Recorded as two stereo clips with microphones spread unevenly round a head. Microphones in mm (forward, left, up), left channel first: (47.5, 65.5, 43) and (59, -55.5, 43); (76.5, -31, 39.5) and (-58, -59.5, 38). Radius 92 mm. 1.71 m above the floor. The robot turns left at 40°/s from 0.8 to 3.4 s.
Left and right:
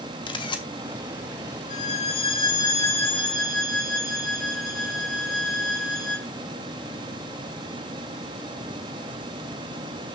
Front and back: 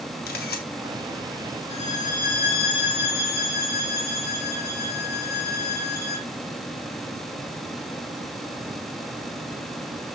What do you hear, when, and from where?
0.3 s a camera shutter: 45° left, 1.8 m
1.7 s a violin: 75° left, 2.5 m; by 6.3 s 5° left, 2.5 m